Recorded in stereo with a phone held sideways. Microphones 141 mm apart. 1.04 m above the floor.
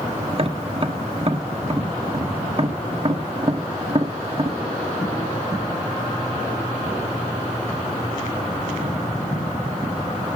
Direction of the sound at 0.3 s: 45° right (ahead or behind).